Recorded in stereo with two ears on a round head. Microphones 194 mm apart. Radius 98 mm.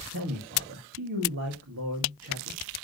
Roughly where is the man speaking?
Right.